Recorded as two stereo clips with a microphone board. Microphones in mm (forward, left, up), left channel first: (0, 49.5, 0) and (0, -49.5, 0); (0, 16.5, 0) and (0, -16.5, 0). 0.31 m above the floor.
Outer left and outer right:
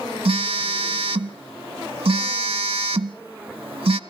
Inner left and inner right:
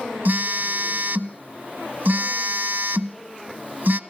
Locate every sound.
0.2 s a phone buzzing: 75° right (ahead or behind), 0.7 m